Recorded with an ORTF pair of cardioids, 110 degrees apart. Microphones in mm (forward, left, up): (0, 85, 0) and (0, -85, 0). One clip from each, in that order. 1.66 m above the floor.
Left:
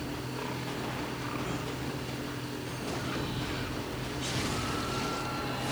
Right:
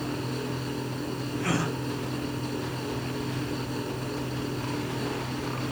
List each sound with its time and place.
0.0 s a fan: 35° right
1.4 s a gasp: 70° right